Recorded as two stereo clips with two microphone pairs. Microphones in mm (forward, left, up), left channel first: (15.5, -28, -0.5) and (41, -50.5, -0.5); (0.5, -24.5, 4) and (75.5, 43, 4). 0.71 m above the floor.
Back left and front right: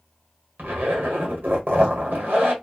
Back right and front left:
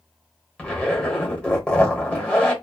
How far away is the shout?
No shout in this recording.